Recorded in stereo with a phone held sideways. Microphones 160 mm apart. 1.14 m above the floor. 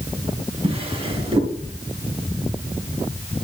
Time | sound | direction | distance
0.6 | a drawer | 40° right (ahead or behind) | 3.5 m